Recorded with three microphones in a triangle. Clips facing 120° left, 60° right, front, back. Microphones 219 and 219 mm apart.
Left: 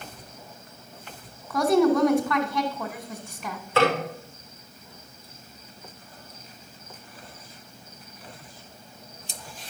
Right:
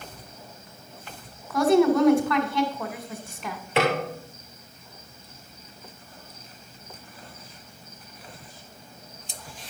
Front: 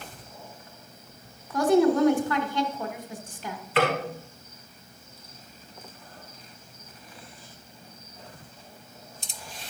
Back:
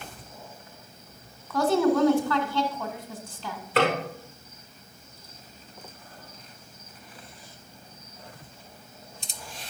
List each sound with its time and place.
1.5 s a woman speaking: 30° left, 1.2 m
3.8 s a snare drum: 135° right, 5 m